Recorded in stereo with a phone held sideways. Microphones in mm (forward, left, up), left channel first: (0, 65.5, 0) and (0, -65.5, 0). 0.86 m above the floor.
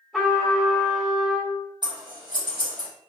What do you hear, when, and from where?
0.1 s a trumpet: 5° right (ahead or behind), 1.7 m
1.8 s scissors: 35° right (ahead or behind), 1.3 m